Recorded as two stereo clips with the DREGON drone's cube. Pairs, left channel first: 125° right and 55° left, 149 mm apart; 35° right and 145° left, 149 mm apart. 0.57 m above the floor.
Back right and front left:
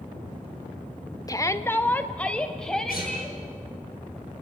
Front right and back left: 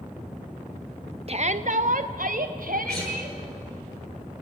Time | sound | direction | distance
1.3 | a shout | 175° left | 1.0 m
2.9 | a guitar | 120° right | 9 m